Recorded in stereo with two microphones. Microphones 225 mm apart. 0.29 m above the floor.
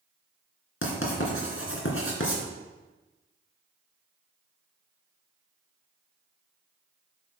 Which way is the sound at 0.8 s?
70° left (ahead or behind).